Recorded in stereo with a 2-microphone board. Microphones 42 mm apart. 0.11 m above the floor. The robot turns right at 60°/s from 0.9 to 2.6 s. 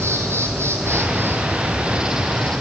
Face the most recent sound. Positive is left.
turn(degrees=20)